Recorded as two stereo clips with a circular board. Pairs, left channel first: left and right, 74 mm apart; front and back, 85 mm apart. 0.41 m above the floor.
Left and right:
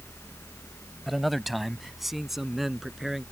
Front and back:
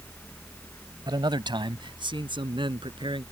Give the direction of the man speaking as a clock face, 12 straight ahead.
6 o'clock.